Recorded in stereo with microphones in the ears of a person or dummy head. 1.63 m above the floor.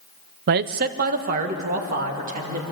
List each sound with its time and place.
0.5 s a man speaking: 50° right (ahead or behind), 0.6 m; by 2.6 s 45° right (ahead or behind), 3 m